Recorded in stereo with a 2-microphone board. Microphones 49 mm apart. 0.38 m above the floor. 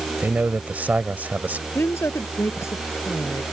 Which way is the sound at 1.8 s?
55° left (ahead or behind).